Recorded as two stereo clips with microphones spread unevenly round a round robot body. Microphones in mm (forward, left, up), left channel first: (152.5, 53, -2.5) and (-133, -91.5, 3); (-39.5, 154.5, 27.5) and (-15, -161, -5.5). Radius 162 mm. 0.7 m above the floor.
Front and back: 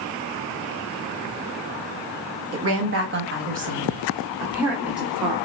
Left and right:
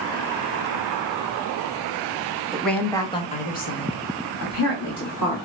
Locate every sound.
2.5 s a woman speaking: 165° right, 1.4 m; by 5.4 s 115° left, 1.9 m